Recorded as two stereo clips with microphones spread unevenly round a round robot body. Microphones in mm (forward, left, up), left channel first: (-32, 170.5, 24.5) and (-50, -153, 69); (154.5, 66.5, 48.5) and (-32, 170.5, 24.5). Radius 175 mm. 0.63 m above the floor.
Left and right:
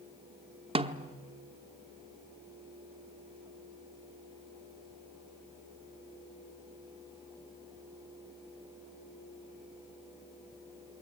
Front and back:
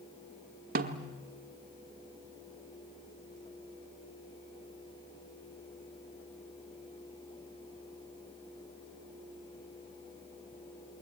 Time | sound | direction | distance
0.8 | a snare drum | 170° right | 1.0 m